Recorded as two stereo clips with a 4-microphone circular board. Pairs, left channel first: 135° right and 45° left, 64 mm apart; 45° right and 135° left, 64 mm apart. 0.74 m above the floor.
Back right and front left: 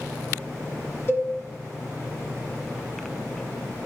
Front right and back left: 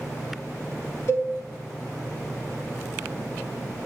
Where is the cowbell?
80° right, 2.5 m.